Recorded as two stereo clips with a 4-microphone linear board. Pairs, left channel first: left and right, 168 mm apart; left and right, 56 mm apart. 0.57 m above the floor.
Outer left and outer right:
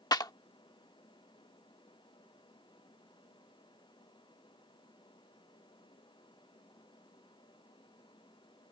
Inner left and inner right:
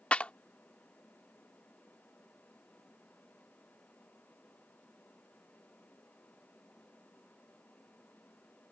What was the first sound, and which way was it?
A clap, 20° left (ahead or behind).